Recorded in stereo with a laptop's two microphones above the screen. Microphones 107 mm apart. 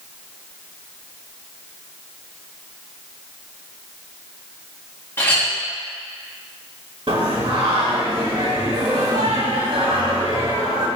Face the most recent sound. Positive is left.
turn(degrees=-55)  # may be behind; listen again after turning